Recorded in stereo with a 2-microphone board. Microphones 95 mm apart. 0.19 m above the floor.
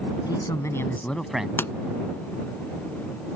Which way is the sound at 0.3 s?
45° left (ahead or behind).